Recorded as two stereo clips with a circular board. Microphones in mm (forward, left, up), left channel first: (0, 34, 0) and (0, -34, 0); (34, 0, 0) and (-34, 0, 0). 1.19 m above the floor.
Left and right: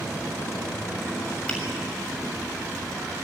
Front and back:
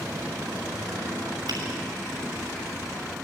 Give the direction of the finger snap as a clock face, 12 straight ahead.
6 o'clock.